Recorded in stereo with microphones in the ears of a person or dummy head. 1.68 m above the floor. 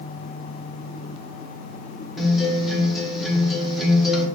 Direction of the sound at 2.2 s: Centre (ahead or behind).